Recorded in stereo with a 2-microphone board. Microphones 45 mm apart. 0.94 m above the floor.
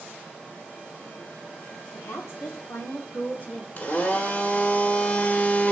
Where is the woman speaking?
75° left (ahead or behind), 1.8 m; by 3.7 s 35° left (ahead or behind), 2 m.